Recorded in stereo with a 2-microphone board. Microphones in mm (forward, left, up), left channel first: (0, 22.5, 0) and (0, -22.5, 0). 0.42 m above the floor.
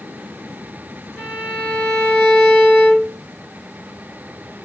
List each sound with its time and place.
1.2 s a violin: 30° left (ahead or behind), 1.7 m